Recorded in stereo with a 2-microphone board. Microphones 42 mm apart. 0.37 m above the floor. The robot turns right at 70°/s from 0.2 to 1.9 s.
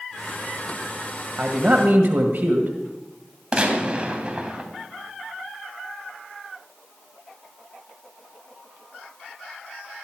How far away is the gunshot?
About 2.5 m.